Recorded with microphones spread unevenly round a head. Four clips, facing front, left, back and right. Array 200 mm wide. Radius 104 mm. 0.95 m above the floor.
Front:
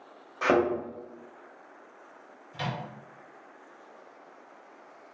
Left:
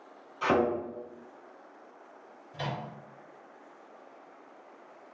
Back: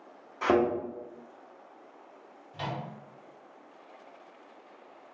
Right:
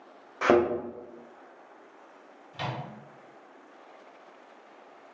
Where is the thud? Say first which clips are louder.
Right 4 dB, front 1 dB; 100° right, 0.7 m.